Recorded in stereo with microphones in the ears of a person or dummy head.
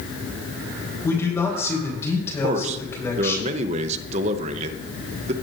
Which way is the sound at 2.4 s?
40° right (ahead or behind).